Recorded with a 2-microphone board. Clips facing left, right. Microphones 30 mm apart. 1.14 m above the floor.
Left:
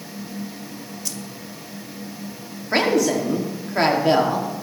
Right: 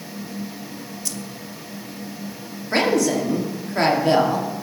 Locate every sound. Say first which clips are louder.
1.1 s keys jangling: right 1 dB; centre (ahead or behind), 0.9 m
2.7 s a woman speaking: even; 10° left (ahead or behind), 3 m